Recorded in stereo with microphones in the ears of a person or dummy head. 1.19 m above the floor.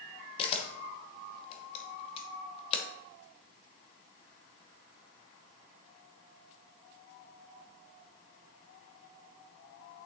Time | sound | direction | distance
0.4 | a camera shutter | 35° left (ahead or behind) | 1.0 m